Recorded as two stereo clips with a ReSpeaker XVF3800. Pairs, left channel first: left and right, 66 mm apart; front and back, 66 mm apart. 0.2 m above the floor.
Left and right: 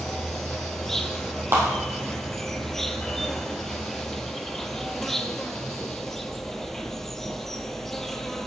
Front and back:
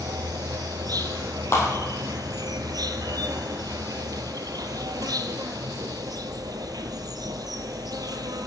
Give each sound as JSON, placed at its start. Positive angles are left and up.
{"t": 0.0, "sound": "an insect", "azimuth_deg": 175, "distance_m": 0.8}
{"t": 1.5, "sound": "a clap", "azimuth_deg": -45, "distance_m": 4.5}